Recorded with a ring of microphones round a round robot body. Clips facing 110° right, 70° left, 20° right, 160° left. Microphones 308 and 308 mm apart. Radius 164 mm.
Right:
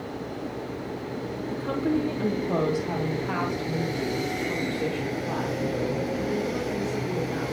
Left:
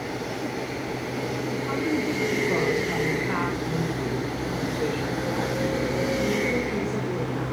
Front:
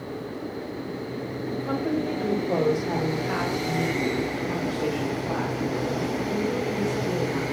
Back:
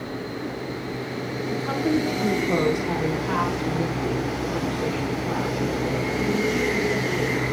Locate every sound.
1.5 s a woman speaking: 150° right, 1.9 m; by 7.4 s 100° right, 4.5 m